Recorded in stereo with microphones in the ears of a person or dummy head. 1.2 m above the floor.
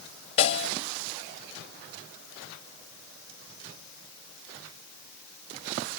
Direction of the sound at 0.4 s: 35° left (ahead or behind).